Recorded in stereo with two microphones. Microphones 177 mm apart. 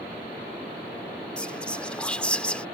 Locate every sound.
1.4 s whispering: 5° left (ahead or behind)